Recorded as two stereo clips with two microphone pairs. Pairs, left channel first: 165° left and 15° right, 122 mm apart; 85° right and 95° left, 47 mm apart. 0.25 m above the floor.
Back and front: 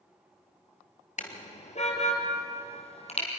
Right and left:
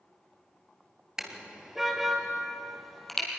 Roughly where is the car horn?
Behind.